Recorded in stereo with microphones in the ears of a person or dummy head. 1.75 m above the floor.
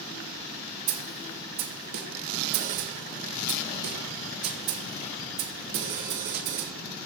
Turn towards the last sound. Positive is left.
turn(degrees=-55)  # may be behind; listen again after turning